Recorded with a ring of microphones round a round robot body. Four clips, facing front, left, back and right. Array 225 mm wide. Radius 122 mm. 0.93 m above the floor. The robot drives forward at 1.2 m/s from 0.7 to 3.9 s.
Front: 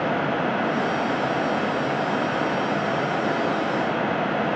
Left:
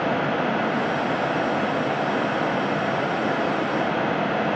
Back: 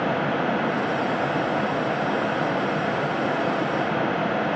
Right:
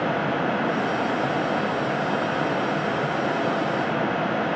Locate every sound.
Only background noise.